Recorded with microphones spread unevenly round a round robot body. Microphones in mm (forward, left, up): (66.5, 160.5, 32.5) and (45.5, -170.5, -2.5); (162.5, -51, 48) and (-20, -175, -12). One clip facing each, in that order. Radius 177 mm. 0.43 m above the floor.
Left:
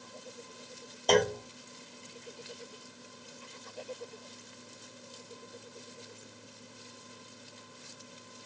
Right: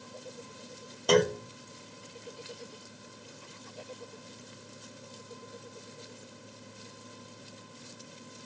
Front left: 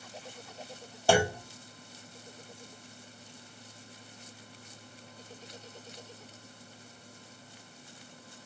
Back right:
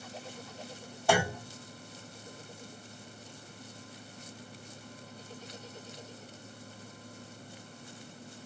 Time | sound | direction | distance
1.1 | a clunk | 35° right | 0.7 m